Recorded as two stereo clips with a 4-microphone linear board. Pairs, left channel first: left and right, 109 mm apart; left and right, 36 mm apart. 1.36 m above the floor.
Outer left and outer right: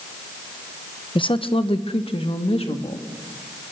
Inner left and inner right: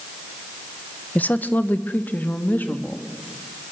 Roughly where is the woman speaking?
Left.